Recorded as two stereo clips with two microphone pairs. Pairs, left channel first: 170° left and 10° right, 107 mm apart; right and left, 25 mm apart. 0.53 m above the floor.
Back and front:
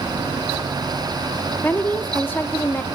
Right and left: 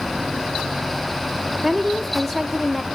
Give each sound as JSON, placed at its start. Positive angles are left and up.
{"t": 1.6, "sound": "a woman speaking", "azimuth_deg": -160, "distance_m": 0.9}